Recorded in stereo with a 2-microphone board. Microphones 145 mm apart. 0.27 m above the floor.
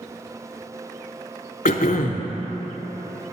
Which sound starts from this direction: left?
Throat clearing, at 1.6 s.